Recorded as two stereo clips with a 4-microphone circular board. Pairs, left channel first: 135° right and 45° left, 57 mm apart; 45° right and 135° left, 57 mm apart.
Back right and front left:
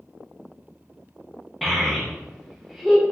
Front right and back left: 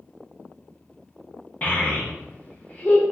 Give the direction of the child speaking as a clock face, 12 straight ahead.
2 o'clock.